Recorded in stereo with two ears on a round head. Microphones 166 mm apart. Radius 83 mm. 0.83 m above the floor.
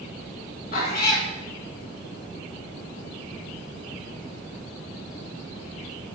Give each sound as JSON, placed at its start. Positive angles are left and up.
{"t": 0.7, "sound": "a cat meowing", "side_deg": 55, "distance_m": 3.5}